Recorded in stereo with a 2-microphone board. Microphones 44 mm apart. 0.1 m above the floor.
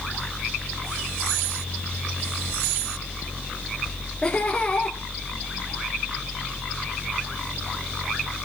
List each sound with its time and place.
4.2 s laughter: 15° left (ahead or behind), 2 m